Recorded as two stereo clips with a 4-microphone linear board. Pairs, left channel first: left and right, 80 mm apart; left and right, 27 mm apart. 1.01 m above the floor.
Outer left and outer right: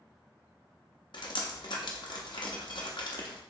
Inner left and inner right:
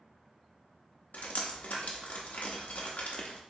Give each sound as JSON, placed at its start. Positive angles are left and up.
{"t": 1.1, "sound": "dripping", "side_deg": 75, "distance_m": 0.6}